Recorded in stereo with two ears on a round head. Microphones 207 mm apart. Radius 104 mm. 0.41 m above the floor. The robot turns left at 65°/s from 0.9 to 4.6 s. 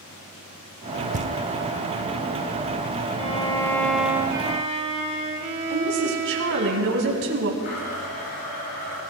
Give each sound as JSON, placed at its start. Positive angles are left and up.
{"t": 1.1, "sound": "knocking", "side_deg": -30, "distance_m": 0.6}
{"t": 3.2, "sound": "a violin", "azimuth_deg": 50, "distance_m": 1.2}
{"t": 5.7, "sound": "a woman speaking", "side_deg": -55, "distance_m": 2.5}
{"t": 7.6, "sound": "a blender", "side_deg": 80, "distance_m": 6.0}